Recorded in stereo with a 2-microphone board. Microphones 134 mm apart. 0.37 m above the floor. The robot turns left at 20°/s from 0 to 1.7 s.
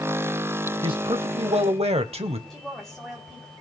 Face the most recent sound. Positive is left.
turn(degrees=0)  # may be behind; listen again after turning